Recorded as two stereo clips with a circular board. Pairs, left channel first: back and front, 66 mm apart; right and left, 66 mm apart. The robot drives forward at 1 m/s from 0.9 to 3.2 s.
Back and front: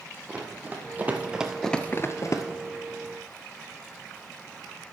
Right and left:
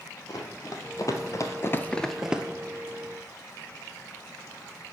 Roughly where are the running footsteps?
Right.